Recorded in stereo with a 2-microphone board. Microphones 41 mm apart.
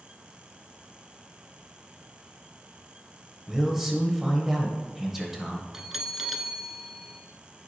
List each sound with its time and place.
3.5 s a man speaking: 5° right (ahead or behind), 1.1 m
5.7 s a bell: 10° right (ahead or behind), 0.5 m